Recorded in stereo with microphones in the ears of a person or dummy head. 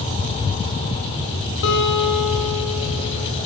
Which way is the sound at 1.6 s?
70° left (ahead or behind).